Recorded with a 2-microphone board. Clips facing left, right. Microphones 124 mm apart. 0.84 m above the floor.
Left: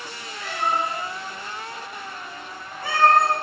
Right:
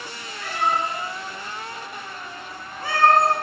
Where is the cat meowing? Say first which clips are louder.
Right 1 dB; 45° right (ahead or behind), 1.7 m.